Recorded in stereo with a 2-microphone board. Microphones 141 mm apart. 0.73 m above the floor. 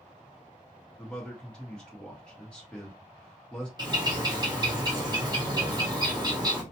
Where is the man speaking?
5° left (ahead or behind), 1.0 m.